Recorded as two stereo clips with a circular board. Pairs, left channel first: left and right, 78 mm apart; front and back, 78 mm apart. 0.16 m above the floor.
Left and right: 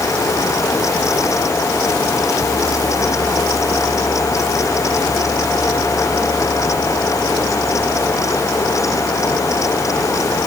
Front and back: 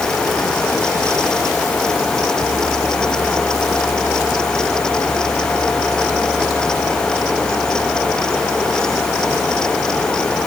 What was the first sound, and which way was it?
Only background noise.